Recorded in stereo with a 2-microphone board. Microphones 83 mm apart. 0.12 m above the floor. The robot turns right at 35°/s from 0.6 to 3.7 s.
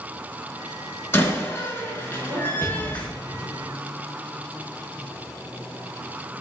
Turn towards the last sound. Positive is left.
turn(degrees=70)